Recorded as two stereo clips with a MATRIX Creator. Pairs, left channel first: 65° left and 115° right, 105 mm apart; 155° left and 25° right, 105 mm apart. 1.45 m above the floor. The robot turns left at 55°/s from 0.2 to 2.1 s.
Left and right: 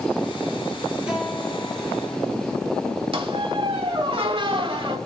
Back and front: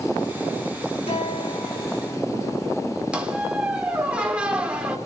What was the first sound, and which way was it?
A guitar, 165° left.